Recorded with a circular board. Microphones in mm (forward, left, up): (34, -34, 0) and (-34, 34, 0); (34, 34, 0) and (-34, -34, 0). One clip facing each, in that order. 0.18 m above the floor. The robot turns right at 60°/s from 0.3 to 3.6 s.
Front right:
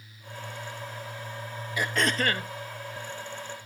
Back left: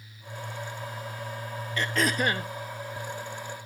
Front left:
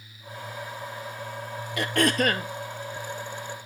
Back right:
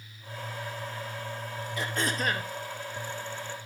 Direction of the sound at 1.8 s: 35° left.